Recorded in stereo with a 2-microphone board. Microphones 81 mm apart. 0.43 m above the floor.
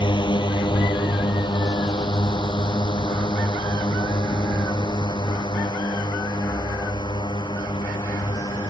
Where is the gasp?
I don't hear a gasp.